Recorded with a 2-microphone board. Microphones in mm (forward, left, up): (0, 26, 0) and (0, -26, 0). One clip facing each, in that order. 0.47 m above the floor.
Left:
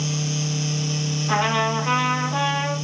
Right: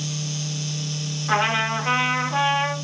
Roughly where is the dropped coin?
I don't hear a dropped coin.